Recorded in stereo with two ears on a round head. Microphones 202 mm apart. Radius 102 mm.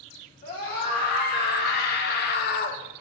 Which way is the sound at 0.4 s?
40° left (ahead or behind).